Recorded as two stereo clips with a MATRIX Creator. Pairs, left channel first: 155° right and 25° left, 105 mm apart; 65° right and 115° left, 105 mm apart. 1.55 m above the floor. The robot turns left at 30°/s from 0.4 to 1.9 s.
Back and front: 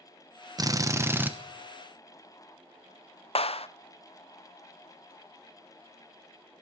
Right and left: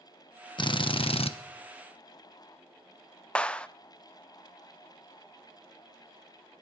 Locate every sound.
0.6 s a drill: 30° right, 1.0 m; by 1.3 s 50° right, 1.0 m
3.4 s a clap: 145° right, 0.6 m